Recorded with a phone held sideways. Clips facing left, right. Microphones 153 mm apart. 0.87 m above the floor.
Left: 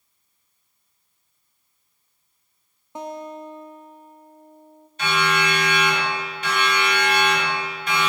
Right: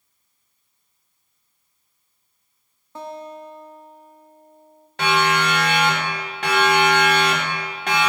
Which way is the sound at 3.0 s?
20° left (ahead or behind).